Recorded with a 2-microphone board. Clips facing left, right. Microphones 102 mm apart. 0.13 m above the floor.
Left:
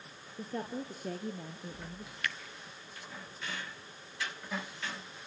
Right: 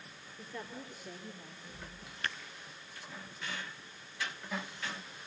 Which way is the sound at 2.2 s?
30° right (ahead or behind).